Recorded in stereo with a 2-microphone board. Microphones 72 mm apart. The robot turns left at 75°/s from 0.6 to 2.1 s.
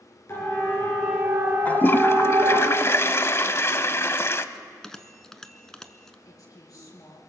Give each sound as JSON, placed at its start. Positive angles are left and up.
{"t": 0.3, "sound": "a siren", "side_deg": 40, "distance_m": 5.5}
{"t": 1.6, "sound": "a toilet flushing", "azimuth_deg": 145, "distance_m": 0.7}
{"t": 4.5, "sound": "a bell", "side_deg": 10, "distance_m": 1.0}
{"t": 6.2, "sound": "a woman speaking", "side_deg": 50, "distance_m": 5.5}